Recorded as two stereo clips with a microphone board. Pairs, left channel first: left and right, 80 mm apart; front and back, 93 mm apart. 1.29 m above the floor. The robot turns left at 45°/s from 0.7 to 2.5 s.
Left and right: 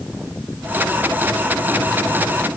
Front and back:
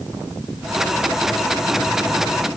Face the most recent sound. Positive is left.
No sound to turn to.